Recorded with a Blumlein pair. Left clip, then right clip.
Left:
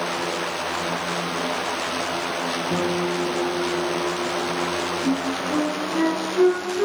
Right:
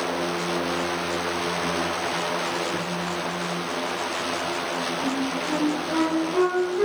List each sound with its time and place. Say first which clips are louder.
2.7 s a guitar: left 4 dB; 50° left, 1.8 m
5.0 s a flute: left 2 dB; 60° right, 4.5 m